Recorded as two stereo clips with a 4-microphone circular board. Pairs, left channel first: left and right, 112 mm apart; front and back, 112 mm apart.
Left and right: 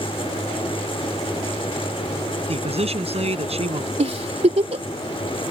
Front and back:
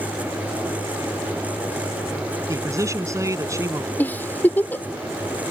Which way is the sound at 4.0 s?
75° right.